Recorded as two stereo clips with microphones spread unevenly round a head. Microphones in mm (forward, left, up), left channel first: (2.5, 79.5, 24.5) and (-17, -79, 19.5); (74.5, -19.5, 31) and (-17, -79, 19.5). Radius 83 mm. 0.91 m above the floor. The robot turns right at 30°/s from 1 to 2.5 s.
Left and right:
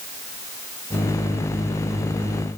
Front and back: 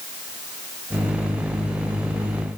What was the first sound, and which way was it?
Only background noise.